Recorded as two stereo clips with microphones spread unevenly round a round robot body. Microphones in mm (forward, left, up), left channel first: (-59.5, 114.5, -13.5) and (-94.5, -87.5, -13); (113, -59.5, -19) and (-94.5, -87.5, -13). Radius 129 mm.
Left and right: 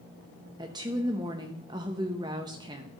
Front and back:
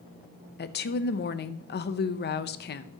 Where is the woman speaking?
25° right, 0.6 m.